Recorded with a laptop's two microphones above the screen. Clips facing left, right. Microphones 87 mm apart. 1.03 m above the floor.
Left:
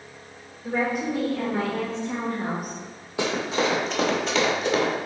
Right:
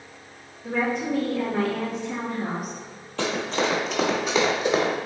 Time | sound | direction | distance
0.6 | a woman speaking | 5° left (ahead or behind) | 1.8 m
3.2 | running footsteps | 15° left (ahead or behind) | 1.2 m